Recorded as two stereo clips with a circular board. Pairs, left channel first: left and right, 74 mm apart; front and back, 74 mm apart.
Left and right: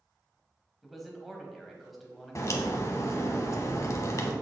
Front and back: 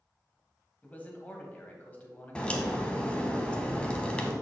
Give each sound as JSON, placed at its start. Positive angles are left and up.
{"t": 0.8, "sound": "a man speaking", "azimuth_deg": -5, "distance_m": 1.1}
{"t": 2.4, "sound": "a crack", "azimuth_deg": 70, "distance_m": 0.9}